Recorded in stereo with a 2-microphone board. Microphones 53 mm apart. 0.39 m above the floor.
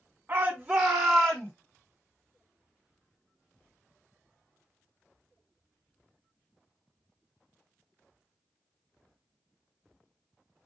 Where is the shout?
30° right (ahead or behind), 1.4 m; by 1.5 s 20° left (ahead or behind), 1.5 m.